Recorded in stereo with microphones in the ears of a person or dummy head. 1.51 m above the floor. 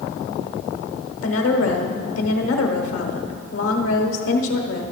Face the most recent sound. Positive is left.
turn(degrees=85)